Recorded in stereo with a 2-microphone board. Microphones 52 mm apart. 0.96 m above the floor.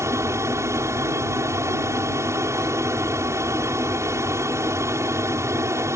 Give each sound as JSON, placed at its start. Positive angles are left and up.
{"t": 0.0, "sound": "an aircraft", "side_deg": -60}